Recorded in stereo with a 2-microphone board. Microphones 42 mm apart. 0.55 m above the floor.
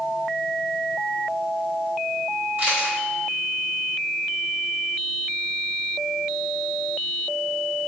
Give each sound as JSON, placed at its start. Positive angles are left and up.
{"t": 2.6, "sound": "a camera shutter", "side_deg": -55, "distance_m": 1.6}